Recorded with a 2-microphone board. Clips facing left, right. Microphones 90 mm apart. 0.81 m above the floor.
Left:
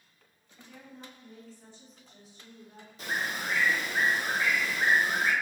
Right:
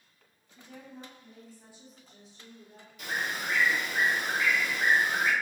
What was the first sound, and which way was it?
A woman speaking, 35° right (ahead or behind).